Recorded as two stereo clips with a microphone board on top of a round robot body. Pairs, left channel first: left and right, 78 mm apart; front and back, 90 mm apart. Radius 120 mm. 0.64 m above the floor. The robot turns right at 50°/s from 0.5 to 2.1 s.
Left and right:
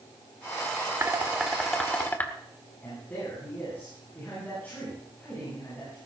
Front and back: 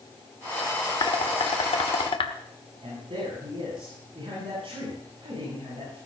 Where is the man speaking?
160° left, 8 m.